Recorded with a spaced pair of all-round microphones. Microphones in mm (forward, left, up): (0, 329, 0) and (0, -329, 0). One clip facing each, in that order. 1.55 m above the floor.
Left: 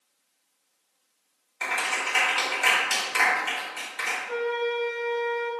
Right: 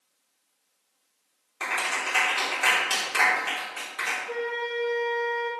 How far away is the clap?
About 4 m.